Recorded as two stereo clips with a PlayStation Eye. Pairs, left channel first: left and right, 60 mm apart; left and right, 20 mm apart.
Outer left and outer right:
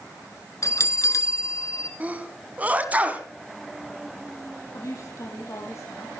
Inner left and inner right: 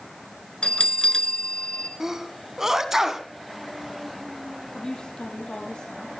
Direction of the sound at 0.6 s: 60° left (ahead or behind).